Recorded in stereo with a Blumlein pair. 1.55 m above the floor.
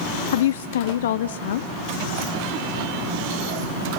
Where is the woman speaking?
60° left, 0.6 m.